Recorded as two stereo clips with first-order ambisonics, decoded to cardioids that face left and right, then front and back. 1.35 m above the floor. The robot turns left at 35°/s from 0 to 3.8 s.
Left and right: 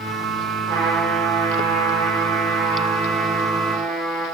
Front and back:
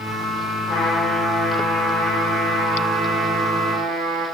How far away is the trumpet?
About 5 m.